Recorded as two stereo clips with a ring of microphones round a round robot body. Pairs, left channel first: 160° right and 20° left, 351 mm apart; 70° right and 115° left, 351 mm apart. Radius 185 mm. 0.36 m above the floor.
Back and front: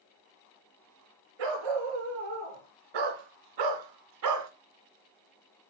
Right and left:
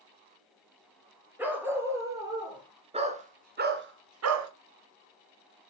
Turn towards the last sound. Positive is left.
turn(degrees=70)